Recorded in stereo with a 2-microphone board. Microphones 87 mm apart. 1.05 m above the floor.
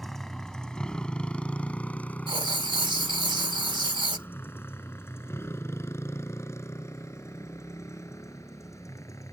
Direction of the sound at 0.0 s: 5° left (ahead or behind).